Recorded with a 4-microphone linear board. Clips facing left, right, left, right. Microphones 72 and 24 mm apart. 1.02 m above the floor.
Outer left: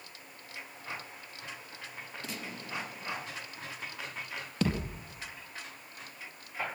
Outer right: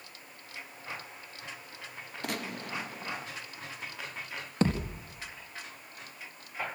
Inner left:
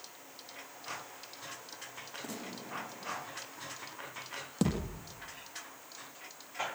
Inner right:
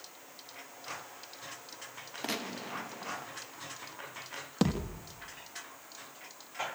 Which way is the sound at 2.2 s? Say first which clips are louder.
Outer right 7 dB, inner right 9 dB; 60° right (ahead or behind).